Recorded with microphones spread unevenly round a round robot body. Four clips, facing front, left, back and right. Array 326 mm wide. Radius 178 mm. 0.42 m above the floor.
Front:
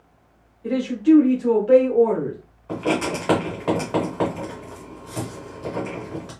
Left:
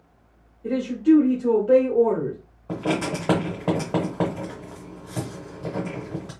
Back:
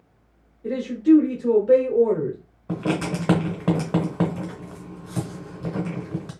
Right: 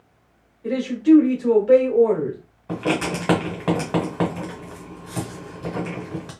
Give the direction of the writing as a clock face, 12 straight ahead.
6 o'clock.